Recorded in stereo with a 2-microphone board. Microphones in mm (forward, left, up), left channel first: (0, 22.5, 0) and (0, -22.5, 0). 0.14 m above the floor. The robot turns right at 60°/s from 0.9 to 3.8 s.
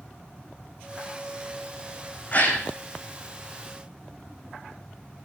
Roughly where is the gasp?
Left.